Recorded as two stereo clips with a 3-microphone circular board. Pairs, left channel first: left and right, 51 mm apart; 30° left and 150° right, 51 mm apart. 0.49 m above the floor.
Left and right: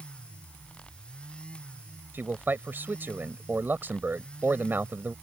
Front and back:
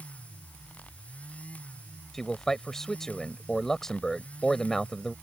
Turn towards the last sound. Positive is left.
turn(degrees=-50)